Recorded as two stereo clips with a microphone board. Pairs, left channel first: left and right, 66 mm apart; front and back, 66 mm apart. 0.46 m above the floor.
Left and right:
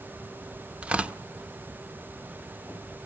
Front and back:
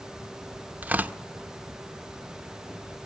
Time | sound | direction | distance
0.8 | tearing paper | 140° right | 0.8 m